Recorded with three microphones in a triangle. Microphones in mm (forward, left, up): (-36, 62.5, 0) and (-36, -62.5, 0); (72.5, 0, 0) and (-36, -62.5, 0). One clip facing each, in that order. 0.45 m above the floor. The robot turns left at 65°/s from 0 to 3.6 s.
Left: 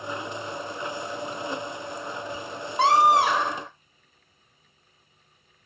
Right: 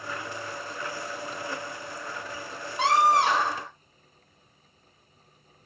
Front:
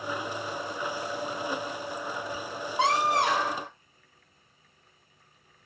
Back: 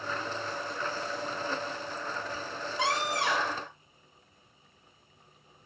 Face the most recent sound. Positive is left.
turn(degrees=-10)